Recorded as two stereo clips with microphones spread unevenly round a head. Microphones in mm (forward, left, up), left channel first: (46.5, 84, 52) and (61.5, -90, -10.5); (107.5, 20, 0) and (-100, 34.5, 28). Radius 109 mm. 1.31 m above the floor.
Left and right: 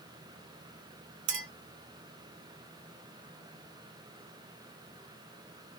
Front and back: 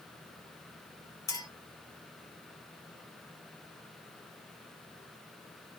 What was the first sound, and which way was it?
A clink, 80° right.